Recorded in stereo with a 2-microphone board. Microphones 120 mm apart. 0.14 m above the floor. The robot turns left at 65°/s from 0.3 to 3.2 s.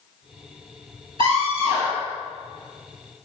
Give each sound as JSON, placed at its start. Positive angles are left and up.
{"t": 1.2, "sound": "a scream", "azimuth_deg": -60, "distance_m": 3.0}